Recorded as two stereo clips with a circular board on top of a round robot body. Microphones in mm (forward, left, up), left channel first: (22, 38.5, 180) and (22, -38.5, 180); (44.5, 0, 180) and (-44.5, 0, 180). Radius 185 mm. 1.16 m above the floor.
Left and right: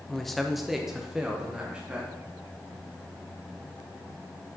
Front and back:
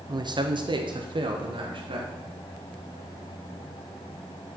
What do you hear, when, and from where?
0.1 s a man speaking: 175° left, 0.9 m; by 2.1 s 165° right, 1.7 m